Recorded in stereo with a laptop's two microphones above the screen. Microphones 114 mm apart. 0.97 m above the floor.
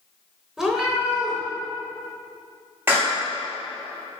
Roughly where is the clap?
Right.